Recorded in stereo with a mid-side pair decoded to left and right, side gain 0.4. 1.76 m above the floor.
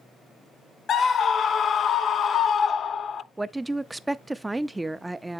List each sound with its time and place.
0.9 s a scream: 55° left, 0.7 m
3.4 s a woman speaking: 20° right, 0.5 m